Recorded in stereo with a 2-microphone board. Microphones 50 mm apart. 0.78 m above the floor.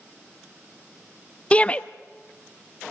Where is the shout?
25° left (ahead or behind), 0.6 m.